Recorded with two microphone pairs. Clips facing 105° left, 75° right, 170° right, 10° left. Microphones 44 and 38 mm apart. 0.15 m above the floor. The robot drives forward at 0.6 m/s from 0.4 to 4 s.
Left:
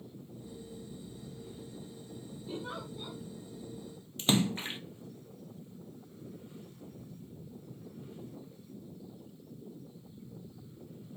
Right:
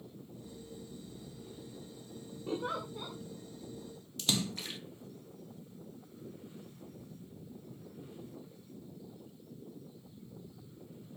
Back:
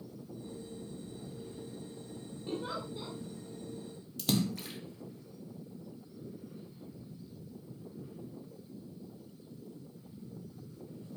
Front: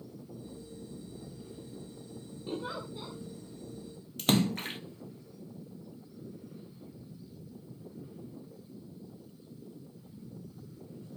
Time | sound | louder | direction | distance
2.5 | a giggle | right 5 dB, even | 80° right | 7.5 m
4.2 | a splash | left 6 dB, front 4 dB | 45° left | 0.6 m